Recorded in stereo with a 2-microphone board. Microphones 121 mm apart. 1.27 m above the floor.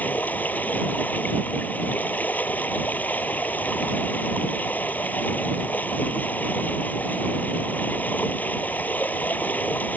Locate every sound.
0.0 s running water: 15° left (ahead or behind)